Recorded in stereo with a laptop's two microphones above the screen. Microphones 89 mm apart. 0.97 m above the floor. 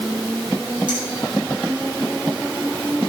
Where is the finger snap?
55° right (ahead or behind), 5.5 m.